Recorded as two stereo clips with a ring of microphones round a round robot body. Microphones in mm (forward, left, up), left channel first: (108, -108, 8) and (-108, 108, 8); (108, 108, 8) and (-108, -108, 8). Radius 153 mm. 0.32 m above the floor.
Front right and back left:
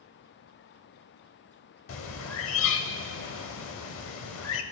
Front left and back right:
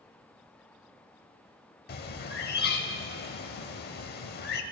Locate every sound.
1.9 s a bird: 10° right, 0.7 m